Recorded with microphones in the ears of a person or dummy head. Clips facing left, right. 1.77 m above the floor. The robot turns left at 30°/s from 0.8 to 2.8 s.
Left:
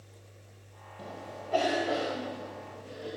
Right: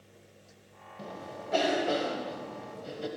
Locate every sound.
1.0 s a cough: 10° right (ahead or behind), 1.8 m; by 3.1 s 65° right (ahead or behind), 1.8 m